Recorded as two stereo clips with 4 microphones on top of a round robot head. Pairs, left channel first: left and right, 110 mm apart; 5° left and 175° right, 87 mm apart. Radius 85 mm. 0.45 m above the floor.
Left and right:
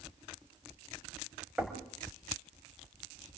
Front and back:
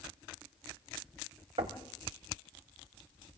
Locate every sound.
1.6 s knocking: 175° right, 2.0 m